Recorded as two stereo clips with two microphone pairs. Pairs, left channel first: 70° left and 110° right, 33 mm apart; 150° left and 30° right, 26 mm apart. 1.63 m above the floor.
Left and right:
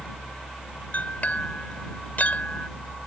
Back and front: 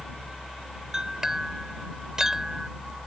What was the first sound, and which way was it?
A clink, 35° left.